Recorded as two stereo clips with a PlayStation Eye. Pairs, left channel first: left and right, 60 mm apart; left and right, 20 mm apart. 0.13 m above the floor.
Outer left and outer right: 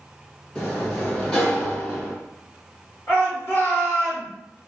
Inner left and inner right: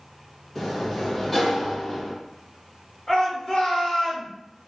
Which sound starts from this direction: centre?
A sliding door, at 0.6 s.